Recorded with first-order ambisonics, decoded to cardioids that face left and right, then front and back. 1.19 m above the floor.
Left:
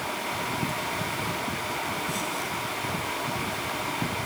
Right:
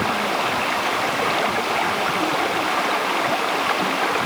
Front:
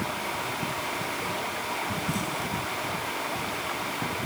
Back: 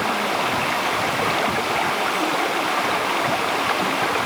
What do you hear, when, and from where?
0.0 s running water: 135° right